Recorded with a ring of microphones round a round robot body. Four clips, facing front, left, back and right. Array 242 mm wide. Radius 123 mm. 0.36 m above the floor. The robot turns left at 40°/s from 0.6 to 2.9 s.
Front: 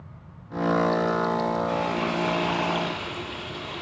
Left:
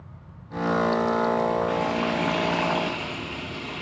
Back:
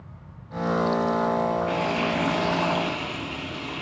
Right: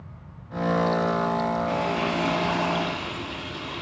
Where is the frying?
170° right, 4 m; by 3.8 s 140° left, 4 m.